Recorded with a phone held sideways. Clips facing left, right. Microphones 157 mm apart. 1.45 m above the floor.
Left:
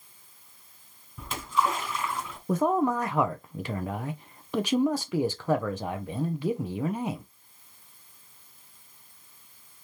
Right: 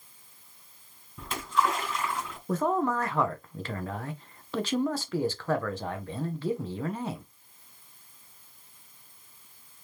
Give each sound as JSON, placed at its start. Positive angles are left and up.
{"t": 1.2, "sound": "a splash", "side_deg": 5, "distance_m": 2.0}
{"t": 2.5, "sound": "a man speaking", "side_deg": 15, "distance_m": 0.6}